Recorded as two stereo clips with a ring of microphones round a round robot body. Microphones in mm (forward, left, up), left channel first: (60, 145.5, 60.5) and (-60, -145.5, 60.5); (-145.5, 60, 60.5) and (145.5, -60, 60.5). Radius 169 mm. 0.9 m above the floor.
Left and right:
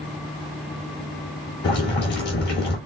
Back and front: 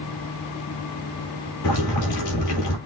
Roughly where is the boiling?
Behind left.